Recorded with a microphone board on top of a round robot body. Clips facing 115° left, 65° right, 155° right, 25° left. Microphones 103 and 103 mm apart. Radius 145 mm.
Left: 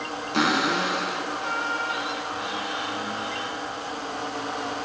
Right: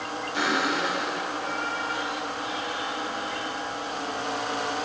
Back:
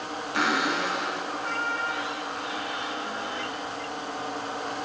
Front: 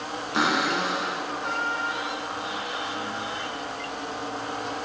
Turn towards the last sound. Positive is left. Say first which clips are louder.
# left 3 dB, front 2 dB
turn(degrees=90)